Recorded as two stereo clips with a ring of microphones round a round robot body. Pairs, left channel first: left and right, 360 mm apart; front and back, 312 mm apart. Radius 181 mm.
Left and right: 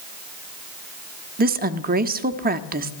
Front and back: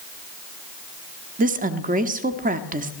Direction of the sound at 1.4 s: 135° right.